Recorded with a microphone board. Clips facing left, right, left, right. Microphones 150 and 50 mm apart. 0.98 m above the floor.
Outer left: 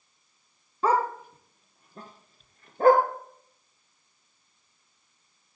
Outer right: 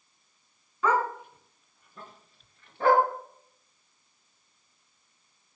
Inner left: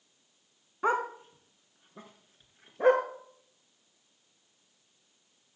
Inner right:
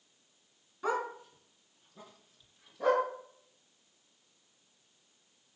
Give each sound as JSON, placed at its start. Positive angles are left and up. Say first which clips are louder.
{"t": 0.8, "sound": "a dog barking", "louder": "outer left 2 dB, inner left 5 dB", "side_deg": 35, "distance_m": 2.5}